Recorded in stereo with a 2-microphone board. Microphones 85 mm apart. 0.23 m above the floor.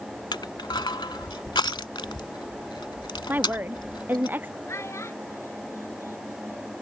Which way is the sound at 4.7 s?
35° left (ahead or behind).